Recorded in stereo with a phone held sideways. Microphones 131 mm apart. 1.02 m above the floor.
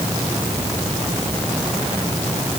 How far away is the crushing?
I don't hear crushing.